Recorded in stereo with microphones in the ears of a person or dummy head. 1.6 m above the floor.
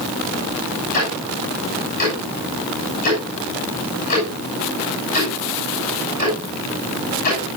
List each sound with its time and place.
0.9 s ticking: 40° left (ahead or behind), 6.5 m